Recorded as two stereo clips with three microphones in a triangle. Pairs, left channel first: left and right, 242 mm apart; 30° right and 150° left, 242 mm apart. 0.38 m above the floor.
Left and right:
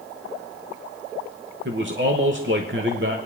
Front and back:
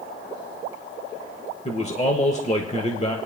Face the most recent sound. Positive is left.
turn(degrees=-85)